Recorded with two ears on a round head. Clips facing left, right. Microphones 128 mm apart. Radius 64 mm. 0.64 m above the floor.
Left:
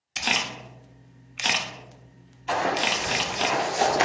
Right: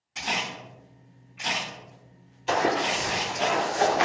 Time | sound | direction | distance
0.2 | a camera shutter | 80° left | 0.6 m
2.5 | running footsteps | 50° right (ahead or behind) | 0.9 m